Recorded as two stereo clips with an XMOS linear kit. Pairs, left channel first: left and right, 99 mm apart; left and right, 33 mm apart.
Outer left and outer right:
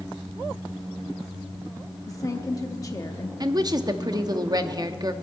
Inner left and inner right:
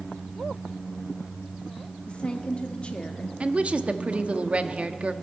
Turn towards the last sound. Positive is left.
turn(degrees=-45)  # may be behind; listen again after turning